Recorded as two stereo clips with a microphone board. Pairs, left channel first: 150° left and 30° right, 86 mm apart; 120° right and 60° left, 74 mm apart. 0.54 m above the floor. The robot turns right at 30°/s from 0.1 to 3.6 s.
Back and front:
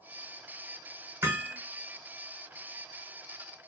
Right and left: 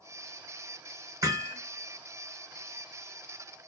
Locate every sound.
1.2 s hammering: 30° left, 1.3 m; by 1.6 s 40° left, 1.3 m